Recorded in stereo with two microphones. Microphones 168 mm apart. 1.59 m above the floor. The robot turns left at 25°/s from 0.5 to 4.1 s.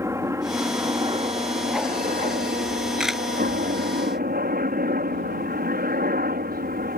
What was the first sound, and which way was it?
A helicopter, 20° right.